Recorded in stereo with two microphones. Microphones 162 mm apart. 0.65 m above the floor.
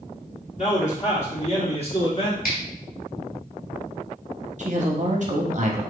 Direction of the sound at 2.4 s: 70° left (ahead or behind).